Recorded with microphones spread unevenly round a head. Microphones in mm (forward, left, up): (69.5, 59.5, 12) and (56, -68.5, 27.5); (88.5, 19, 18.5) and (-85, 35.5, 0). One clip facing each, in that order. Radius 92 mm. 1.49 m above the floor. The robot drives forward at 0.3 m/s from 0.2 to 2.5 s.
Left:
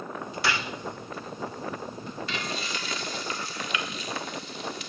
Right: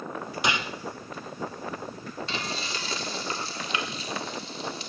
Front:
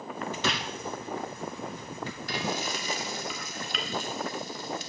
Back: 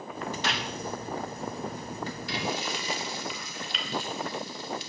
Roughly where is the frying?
Ahead right.